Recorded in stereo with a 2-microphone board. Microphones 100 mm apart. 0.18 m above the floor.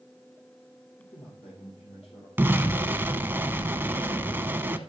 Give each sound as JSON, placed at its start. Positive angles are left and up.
{"t": 1.0, "sound": "a man speaking", "side_deg": 70, "distance_m": 6.0}
{"t": 2.4, "sound": "an explosion", "side_deg": -20, "distance_m": 0.7}